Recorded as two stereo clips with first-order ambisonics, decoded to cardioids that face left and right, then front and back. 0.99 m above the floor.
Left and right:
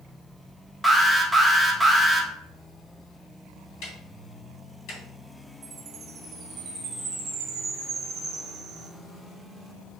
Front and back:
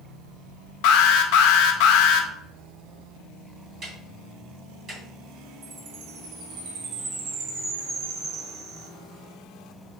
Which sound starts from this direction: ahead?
An alarm, at 0.8 s.